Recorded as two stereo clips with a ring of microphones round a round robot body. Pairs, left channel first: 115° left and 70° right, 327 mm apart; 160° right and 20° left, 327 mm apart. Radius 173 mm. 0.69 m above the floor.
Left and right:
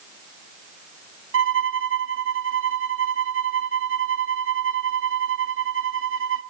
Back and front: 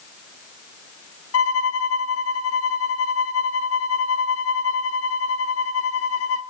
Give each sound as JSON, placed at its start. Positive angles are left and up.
{"t": 1.3, "sound": "a violin", "azimuth_deg": -115, "distance_m": 2.0}